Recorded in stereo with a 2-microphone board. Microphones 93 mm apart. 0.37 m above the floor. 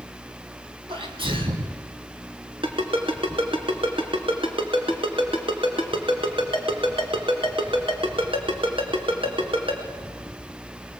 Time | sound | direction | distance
0.9 | a sneeze | 70° right (ahead or behind) | 2.5 m
2.6 | a ringtone | 75° right (ahead or behind) | 2.5 m